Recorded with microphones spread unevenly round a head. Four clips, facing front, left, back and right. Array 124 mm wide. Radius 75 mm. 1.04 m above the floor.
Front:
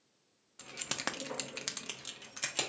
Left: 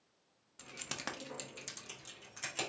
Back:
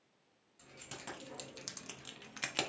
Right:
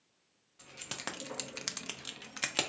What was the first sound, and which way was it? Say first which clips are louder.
Keys jangling: right 1 dB, front 10 dB; 10° left.